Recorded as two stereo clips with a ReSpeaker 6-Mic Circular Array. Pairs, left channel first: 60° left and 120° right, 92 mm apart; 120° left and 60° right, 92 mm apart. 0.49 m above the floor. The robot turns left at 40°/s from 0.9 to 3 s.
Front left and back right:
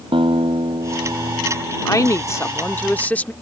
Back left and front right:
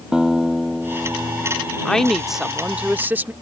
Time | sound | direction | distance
0.1 | a guitar | 140° right | ?
1.9 | a woman speaking | 45° left | ?